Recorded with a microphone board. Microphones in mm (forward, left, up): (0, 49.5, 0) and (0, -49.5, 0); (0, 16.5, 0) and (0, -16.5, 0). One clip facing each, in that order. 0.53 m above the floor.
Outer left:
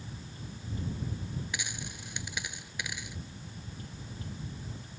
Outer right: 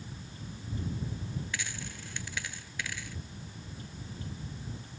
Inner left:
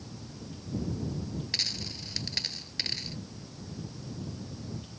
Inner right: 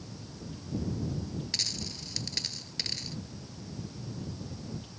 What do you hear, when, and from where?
1.5 s a dropped coin: 15° left (ahead or behind)